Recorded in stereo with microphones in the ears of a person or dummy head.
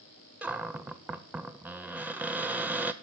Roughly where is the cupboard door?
Centre.